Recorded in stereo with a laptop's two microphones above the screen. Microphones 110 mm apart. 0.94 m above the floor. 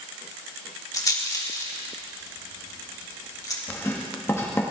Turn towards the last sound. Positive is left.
turn(degrees=25)  # may be behind; listen again after turning